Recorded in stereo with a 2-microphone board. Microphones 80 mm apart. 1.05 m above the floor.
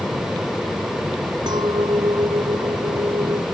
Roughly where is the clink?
Right.